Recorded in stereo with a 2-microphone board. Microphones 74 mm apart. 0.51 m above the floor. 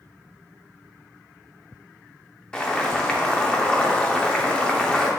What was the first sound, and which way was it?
Boiling, 15° left (ahead or behind).